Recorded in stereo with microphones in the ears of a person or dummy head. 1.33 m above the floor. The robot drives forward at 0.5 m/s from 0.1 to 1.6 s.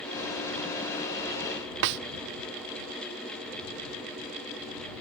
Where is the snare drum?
60° right (ahead or behind).